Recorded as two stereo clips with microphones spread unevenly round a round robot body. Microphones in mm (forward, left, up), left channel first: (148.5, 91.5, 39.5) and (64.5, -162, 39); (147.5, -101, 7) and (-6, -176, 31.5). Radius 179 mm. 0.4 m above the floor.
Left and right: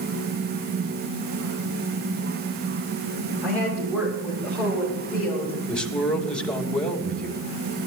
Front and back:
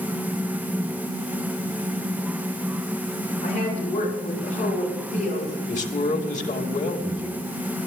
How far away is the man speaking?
About 3 m.